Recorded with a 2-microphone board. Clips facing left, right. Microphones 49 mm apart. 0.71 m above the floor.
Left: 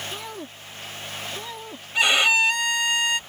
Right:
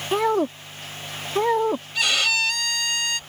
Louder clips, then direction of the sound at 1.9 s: Left 6 dB; 25° left (ahead or behind).